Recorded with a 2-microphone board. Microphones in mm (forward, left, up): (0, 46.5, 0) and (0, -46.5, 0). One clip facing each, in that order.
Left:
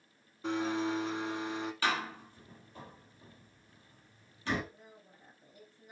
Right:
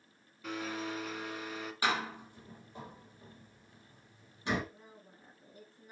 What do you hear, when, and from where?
0.4 s a blender: 25° left (ahead or behind), 1.2 m
1.8 s a door slam: 20° right (ahead or behind), 3.5 m
4.7 s a woman speaking: 30° right (ahead or behind), 5.5 m